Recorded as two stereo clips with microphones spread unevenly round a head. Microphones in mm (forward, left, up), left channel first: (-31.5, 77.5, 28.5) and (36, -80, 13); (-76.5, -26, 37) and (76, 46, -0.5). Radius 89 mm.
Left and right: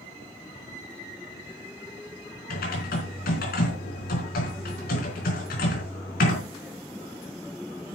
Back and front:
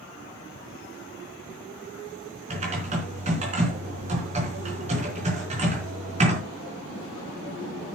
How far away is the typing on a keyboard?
About 4 m.